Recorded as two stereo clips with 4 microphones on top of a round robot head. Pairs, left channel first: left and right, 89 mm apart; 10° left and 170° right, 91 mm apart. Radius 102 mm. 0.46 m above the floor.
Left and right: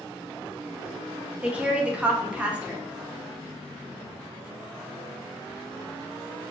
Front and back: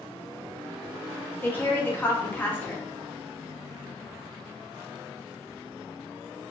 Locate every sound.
1.4 s a woman speaking: 30° right, 0.9 m